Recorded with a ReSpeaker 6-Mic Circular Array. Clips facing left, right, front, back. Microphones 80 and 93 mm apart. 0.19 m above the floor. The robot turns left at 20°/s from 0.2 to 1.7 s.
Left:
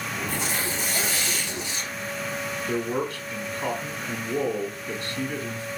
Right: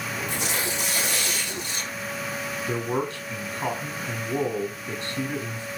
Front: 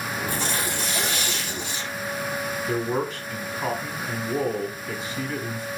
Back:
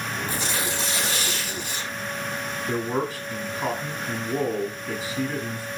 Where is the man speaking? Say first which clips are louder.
Even, even; 100° right, 1.3 m.